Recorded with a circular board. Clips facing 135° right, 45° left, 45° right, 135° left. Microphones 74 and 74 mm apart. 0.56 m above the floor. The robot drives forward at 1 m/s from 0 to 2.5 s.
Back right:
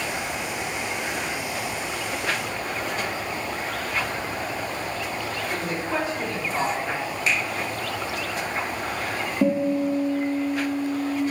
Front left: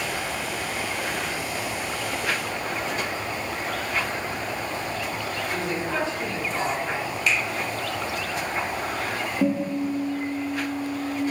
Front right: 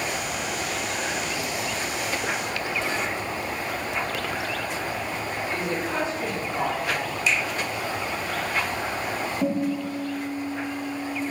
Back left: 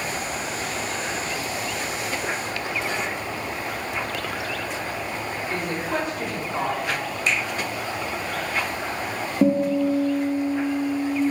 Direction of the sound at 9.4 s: 140° left.